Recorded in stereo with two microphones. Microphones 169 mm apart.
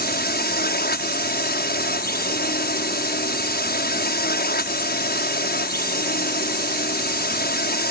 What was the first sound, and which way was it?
A drone, 65° left (ahead or behind).